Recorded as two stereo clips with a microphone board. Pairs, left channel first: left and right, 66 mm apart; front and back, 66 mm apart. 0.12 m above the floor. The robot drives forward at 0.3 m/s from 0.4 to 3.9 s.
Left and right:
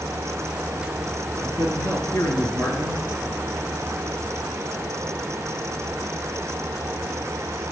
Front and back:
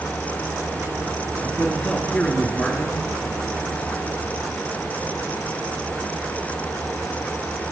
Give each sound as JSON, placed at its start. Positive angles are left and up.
{"t": 1.4, "sound": "a man speaking", "azimuth_deg": 75, "distance_m": 2.0}